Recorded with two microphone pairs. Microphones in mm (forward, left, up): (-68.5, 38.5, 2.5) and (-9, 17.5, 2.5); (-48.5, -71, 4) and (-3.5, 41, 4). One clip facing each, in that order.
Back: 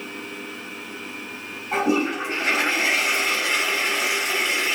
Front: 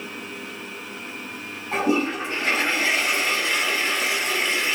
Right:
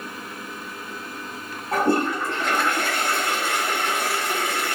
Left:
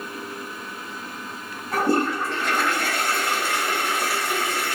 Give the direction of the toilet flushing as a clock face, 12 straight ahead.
4 o'clock.